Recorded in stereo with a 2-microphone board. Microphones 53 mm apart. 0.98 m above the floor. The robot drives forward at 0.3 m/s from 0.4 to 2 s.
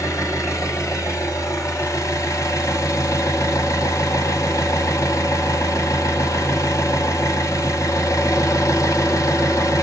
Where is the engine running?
80° left, 1.7 m.